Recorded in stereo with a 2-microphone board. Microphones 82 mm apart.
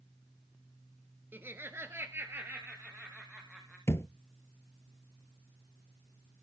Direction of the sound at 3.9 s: 30° left (ahead or behind).